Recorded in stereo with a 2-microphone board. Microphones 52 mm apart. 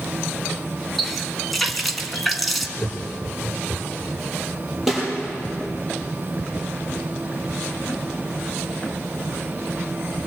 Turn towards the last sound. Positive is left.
turn(degrees=-5)  # may be behind; listen again after turning